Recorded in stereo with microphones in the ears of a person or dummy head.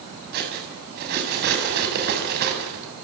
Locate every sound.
0.3 s cutlery clinking: 50° right (ahead or behind), 7 m